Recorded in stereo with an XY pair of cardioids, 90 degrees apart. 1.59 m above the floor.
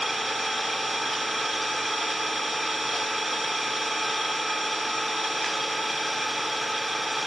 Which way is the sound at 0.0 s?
15° right.